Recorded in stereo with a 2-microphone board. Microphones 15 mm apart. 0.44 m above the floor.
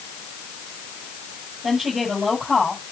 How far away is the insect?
I don't hear an insect.